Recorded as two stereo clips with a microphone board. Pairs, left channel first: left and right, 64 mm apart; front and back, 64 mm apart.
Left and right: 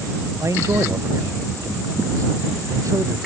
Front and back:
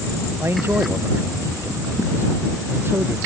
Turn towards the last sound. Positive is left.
turn(degrees=-125)